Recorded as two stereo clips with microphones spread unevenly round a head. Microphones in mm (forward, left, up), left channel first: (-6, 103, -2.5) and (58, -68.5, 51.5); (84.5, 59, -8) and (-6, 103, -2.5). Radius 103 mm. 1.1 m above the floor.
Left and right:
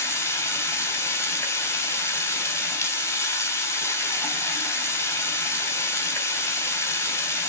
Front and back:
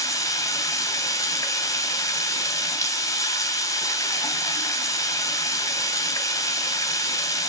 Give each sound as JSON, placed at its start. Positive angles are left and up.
{"t": 0.0, "sound": "running water", "azimuth_deg": 30, "distance_m": 3.5}